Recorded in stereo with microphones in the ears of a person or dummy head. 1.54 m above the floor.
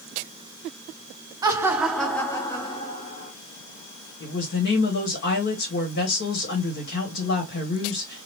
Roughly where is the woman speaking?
Left.